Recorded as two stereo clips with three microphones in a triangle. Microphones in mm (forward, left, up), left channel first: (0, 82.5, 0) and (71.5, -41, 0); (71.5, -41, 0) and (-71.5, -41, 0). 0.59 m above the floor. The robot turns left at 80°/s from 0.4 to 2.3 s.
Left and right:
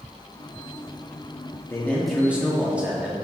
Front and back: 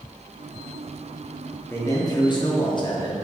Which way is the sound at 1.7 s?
65° left.